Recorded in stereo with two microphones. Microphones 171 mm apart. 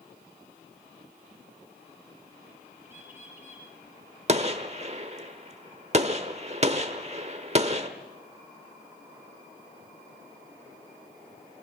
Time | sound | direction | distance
2.8 | a bird | 15° right (ahead or behind) | 5.5 m
4.3 | a gunshot | 40° right (ahead or behind) | 1.2 m